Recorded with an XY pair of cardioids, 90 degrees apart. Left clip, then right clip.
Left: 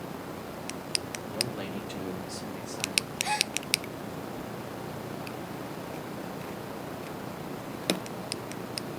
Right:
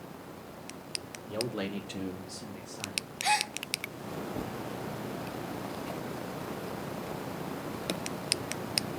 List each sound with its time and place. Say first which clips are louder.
1.3 s a man speaking: right 1 dB; 50° right, 1.7 m; by 3.1 s 55° left, 1.9 m
3.2 s a gasp: right 4 dB; 40° right, 0.8 m